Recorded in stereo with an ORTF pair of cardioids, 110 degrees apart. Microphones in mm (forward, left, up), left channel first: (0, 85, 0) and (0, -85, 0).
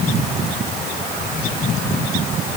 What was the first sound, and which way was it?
Only background noise.